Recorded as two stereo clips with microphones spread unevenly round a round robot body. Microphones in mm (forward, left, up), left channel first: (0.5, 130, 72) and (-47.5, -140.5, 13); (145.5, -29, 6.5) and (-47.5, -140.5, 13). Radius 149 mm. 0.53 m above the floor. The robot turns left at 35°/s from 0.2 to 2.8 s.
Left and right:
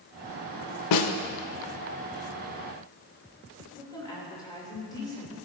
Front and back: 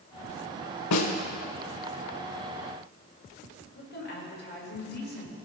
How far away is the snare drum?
About 0.6 m.